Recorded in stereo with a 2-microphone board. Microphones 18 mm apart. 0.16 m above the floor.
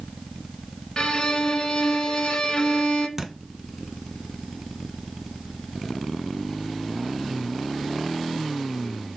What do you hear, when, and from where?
1.0 s a violin: 35° left (ahead or behind), 0.5 m
3.2 s a thud: 20° right (ahead or behind), 0.5 m